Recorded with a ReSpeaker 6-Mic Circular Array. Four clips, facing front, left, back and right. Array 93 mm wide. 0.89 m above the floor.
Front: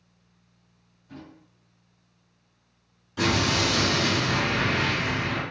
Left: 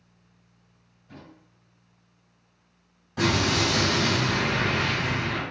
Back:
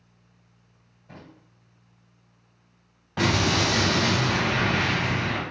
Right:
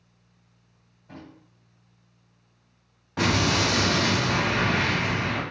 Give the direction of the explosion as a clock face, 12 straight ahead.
5 o'clock.